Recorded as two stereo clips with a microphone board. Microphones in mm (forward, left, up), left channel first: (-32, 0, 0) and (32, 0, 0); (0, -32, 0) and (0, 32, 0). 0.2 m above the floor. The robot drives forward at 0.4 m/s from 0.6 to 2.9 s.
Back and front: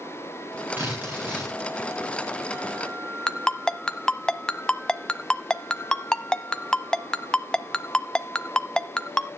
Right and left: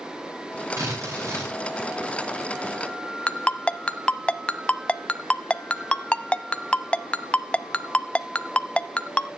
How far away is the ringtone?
About 0.6 m.